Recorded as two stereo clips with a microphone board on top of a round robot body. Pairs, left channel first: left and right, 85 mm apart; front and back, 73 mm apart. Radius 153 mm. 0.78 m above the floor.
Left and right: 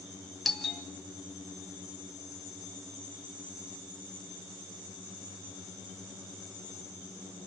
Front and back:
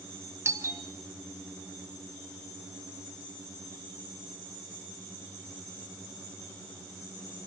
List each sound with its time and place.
0.5 s a doorbell: straight behind, 1.6 m